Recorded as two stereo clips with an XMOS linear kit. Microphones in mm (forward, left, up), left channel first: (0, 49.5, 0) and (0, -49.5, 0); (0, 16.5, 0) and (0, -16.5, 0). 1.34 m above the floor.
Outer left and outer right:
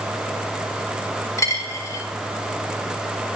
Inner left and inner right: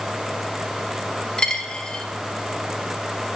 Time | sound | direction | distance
1.4 | a dropped coin | 30° left (ahead or behind) | 0.9 m